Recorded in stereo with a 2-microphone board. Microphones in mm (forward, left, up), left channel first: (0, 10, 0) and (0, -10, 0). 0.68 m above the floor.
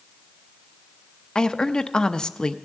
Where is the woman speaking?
45° left (ahead or behind), 0.6 m.